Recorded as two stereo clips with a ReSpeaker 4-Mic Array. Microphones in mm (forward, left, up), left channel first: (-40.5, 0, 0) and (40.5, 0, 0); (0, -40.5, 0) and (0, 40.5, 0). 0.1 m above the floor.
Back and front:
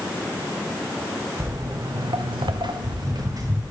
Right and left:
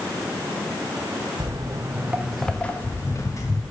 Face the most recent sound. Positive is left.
turn(degrees=-50)